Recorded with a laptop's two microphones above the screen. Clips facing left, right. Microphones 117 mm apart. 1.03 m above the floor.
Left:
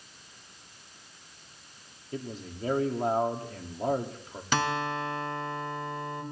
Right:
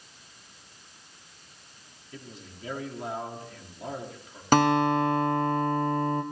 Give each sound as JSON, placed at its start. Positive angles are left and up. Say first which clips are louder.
{"t": 2.1, "sound": "a man speaking", "louder": "left 8 dB", "side_deg": 40, "distance_m": 1.9}
{"t": 4.5, "sound": "a guitar", "louder": "right 8 dB", "side_deg": -45, "distance_m": 1.1}